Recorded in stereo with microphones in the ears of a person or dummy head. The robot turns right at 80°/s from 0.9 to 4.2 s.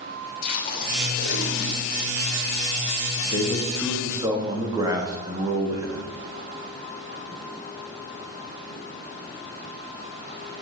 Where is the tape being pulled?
60° left, 3 m; by 2.1 s 155° left, 3 m.